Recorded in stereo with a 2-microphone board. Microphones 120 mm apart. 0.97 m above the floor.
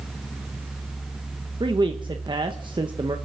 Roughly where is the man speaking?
Right.